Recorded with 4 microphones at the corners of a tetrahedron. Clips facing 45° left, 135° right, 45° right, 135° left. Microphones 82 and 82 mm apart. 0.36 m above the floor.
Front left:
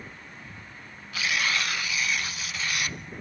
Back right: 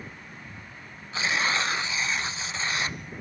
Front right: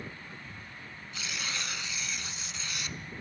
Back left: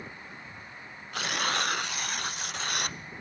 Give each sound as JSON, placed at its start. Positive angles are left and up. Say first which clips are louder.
{"t": 1.1, "sound": "tearing paper", "louder": "back right 2 dB, back left 9 dB", "azimuth_deg": 165, "distance_m": 0.6}